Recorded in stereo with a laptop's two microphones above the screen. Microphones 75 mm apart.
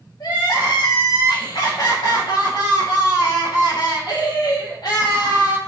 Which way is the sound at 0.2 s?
70° left (ahead or behind).